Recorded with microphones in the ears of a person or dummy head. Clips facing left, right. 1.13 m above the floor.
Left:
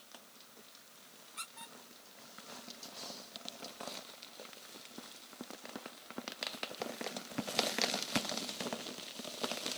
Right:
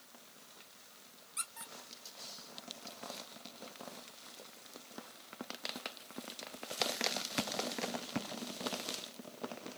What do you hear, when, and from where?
1.4 s a squeak: 35° right (ahead or behind), 0.9 m